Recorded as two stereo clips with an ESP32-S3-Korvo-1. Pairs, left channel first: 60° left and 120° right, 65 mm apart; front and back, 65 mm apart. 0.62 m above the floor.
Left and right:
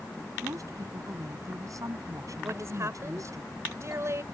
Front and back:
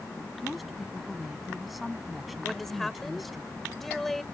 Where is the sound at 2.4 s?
85° right.